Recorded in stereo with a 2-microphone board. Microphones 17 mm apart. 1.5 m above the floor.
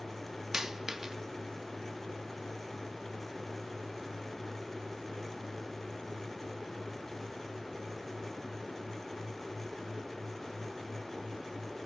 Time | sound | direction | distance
0.5 | a dropped coin | 25° right (ahead or behind) | 1.1 m